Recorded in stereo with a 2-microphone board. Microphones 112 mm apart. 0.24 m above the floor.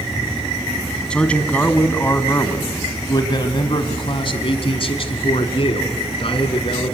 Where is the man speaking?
10° left (ahead or behind), 1.9 m; by 7.0 s 55° left (ahead or behind), 3 m.